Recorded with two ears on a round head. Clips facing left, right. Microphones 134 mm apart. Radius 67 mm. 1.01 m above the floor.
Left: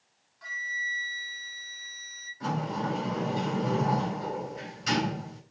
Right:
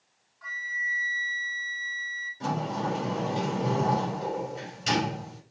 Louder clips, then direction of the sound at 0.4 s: Right 1 dB; 35° left (ahead or behind).